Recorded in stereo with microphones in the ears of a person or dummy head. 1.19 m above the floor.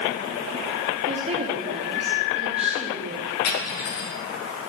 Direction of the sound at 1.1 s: 35° right (ahead or behind).